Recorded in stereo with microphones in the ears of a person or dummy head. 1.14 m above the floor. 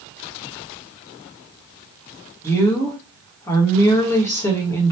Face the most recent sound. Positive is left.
turn(degrees=15)  # may be behind; listen again after turning